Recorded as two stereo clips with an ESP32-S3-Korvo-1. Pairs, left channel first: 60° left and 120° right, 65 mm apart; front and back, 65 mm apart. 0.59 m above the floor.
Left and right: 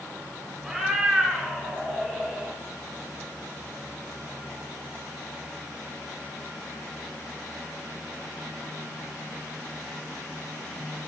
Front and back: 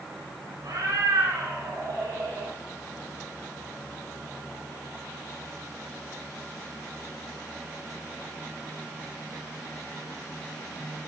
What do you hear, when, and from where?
0.6 s a cat meowing: 145° left, 3.5 m; by 2.5 s 150° left, 5 m